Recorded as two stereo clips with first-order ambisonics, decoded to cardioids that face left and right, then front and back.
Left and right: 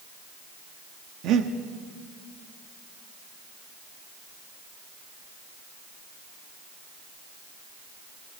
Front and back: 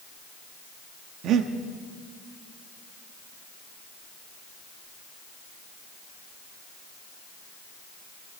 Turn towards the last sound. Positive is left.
turn(degrees=-135)